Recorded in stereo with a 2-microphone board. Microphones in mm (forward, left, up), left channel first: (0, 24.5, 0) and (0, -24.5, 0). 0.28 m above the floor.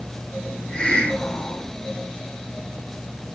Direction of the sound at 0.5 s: 20° left (ahead or behind).